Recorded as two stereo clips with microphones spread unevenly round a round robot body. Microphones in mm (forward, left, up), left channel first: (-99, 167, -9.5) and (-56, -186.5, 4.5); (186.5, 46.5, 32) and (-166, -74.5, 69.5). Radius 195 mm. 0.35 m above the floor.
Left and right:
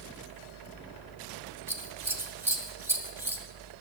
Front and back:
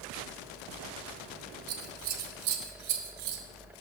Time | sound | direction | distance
1.7 | scissors | 165° right | 2 m